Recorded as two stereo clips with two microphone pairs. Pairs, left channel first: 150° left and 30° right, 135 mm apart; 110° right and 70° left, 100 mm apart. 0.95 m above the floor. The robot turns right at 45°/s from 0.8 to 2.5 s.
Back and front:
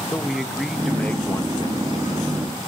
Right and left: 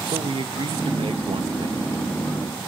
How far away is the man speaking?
About 0.7 m.